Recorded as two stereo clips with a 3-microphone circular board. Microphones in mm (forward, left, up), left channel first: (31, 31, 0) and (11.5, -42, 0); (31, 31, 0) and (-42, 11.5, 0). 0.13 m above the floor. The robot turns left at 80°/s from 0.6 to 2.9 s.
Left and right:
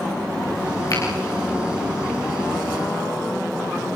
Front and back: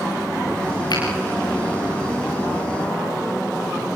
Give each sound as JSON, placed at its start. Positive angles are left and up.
{"t": 0.9, "sound": "a finger snap", "azimuth_deg": 35, "distance_m": 10.0}